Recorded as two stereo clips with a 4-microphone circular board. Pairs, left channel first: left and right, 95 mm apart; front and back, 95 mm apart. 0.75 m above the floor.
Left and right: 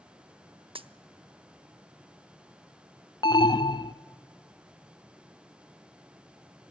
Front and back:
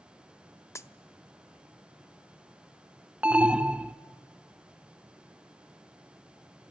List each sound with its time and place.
0.8 s a dropped coin: 65° right, 0.6 m
3.2 s an alarm: 105° left, 0.5 m